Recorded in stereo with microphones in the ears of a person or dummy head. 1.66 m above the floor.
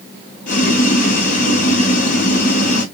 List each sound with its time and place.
0.5 s boiling: 45° left (ahead or behind), 2 m